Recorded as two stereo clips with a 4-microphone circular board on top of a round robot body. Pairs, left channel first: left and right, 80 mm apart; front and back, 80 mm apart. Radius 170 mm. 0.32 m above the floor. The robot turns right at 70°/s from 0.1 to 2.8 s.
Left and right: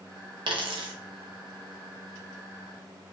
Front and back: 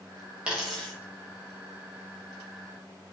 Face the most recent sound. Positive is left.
turn(degrees=60)